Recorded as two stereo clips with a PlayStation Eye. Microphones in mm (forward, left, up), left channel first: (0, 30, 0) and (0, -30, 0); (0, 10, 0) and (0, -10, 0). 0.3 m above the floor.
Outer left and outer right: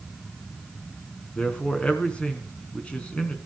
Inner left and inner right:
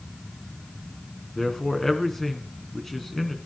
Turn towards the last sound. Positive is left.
turn(degrees=20)  # may be behind; listen again after turning